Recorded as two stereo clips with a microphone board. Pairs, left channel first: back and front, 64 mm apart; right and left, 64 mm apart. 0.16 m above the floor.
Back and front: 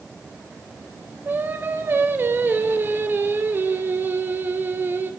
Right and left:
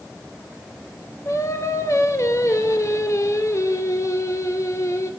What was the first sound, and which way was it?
Singing, 55° right.